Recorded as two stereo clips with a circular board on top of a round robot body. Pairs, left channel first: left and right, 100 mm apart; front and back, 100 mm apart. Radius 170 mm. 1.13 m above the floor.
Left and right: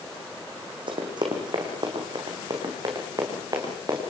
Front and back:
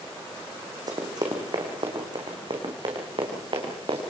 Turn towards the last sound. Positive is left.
turn(degrees=-145)